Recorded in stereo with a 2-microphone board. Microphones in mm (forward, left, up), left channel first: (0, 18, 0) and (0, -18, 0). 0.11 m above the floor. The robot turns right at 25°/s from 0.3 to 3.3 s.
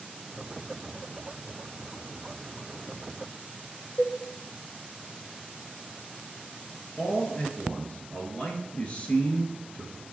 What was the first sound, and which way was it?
A cowbell, 50° left (ahead or behind).